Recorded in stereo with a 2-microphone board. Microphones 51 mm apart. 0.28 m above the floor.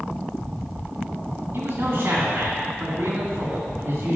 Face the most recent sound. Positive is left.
turn(degrees=-55)  # may be behind; listen again after turning